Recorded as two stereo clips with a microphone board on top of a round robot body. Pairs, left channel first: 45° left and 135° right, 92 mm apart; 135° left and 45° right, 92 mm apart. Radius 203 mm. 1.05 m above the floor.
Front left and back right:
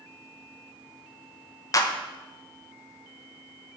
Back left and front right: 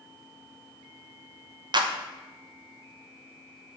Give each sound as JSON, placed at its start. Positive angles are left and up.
{"t": 1.7, "sound": "a clap", "azimuth_deg": -10, "distance_m": 1.0}